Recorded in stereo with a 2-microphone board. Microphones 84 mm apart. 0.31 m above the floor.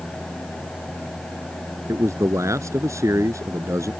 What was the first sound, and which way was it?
A man speaking, 35° right (ahead or behind).